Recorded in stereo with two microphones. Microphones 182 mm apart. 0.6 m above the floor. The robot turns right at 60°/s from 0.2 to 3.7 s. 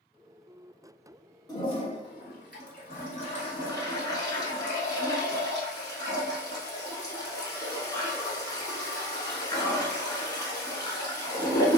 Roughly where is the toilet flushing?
Ahead left.